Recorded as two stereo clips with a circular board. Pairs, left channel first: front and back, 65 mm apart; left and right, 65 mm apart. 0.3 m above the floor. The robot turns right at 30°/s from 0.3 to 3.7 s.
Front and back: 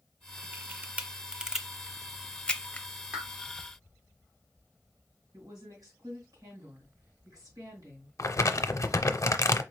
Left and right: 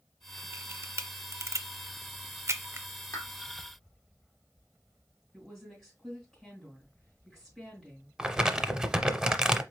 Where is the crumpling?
15° right, 0.5 m.